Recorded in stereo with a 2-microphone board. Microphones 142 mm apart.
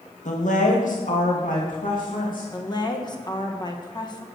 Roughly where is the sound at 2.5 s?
Left.